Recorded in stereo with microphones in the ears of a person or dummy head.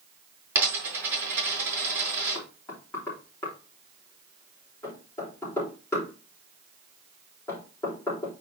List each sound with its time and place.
0.6 s a dropped coin: 10° right (ahead or behind), 4.5 m
2.4 s knocking: 20° left (ahead or behind), 4 m